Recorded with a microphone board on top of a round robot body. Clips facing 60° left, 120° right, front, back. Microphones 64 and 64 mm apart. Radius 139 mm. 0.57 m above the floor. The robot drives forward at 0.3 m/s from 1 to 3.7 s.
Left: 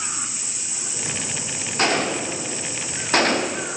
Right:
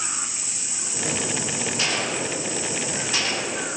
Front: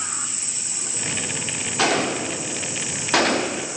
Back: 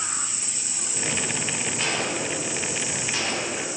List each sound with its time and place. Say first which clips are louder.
1.8 s a gunshot: left 7 dB, front 8 dB; 15° left, 1.1 m; by 3.7 s 30° left, 0.6 m